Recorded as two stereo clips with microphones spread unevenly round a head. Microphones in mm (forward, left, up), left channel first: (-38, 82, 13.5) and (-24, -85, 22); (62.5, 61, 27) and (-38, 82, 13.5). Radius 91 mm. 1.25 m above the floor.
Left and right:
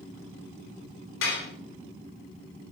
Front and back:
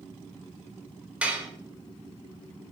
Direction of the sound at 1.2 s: 90° left.